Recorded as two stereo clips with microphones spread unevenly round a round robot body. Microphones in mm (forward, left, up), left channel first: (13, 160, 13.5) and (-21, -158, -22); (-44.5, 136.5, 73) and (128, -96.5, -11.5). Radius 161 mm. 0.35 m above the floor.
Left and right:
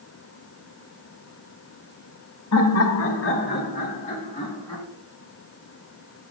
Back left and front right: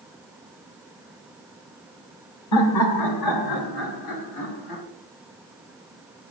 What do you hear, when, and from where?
2.5 s laughter: 105° left, 2 m; by 4.8 s 165° left, 4 m